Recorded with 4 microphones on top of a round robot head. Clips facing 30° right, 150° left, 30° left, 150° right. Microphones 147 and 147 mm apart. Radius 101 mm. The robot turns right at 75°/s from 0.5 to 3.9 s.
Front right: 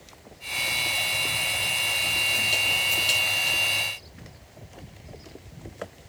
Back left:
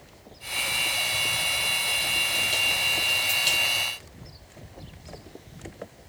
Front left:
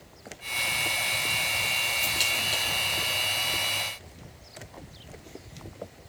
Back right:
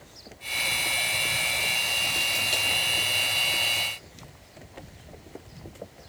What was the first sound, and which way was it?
Only background noise.